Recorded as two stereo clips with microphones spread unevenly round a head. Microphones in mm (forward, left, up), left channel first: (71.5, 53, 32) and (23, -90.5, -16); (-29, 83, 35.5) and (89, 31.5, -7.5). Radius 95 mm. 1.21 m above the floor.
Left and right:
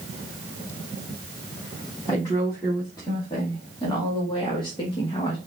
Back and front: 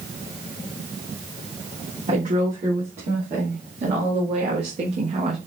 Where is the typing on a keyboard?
No typing on a keyboard in this recording.